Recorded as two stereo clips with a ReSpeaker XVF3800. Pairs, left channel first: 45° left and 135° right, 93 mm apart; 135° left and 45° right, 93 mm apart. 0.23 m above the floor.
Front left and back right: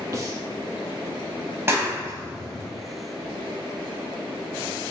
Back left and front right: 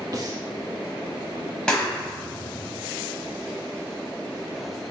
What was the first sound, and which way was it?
Breathing, 85° right.